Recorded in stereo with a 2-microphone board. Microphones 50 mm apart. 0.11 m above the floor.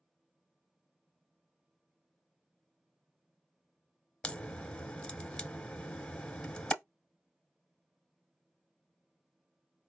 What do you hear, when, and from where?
4.2 s a crack: 20° left (ahead or behind), 1.0 m